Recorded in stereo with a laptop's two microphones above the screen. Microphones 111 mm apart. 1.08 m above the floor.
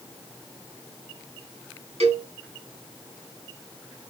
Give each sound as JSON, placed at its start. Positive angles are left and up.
{"t": 2.0, "sound": "a cowbell", "side_deg": -75, "distance_m": 6.0}